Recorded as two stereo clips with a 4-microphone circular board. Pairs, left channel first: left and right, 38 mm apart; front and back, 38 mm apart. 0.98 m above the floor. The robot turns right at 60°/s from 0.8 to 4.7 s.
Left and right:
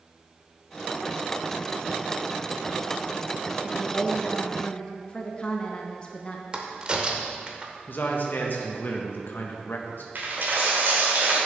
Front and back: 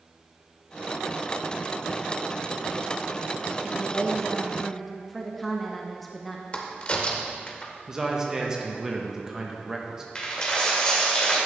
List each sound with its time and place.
3.6 s a woman speaking: 20° left, 0.6 m; by 6.4 s 85° left, 0.6 m
6.5 s a crack: 40° right, 0.8 m
7.9 s a man speaking: 105° left, 0.7 m
10.2 s a dropped coin: 60° right, 1.5 m